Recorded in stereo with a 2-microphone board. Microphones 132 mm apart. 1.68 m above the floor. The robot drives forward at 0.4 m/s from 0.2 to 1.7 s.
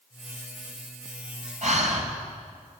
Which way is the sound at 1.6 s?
65° right (ahead or behind).